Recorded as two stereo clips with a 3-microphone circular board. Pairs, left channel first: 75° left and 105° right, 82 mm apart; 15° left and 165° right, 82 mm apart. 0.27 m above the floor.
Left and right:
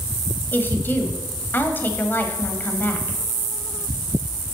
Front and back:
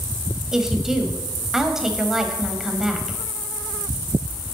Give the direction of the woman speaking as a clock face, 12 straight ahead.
8 o'clock.